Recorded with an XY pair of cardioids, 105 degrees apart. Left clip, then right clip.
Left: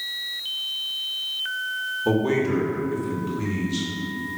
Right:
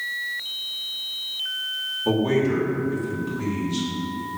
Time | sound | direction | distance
2.0 | a man speaking | 15° left | 2 m